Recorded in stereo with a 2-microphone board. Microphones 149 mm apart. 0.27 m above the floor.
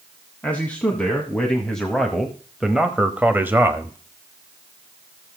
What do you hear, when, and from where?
0.4 s a man speaking: 10° left (ahead or behind), 2.5 m; by 4.0 s 15° right (ahead or behind), 1.2 m